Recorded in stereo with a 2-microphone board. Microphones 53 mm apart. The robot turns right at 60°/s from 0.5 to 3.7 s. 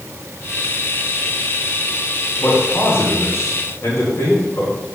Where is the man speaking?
30° left (ahead or behind), 3.5 m; by 4.8 s 65° left (ahead or behind), 3.5 m.